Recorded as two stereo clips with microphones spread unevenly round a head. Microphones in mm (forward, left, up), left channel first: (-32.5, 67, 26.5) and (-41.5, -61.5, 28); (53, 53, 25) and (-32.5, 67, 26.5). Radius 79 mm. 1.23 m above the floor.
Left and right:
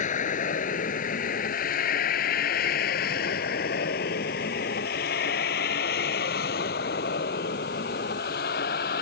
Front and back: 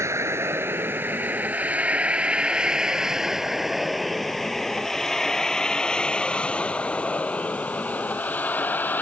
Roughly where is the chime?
No chime in this recording.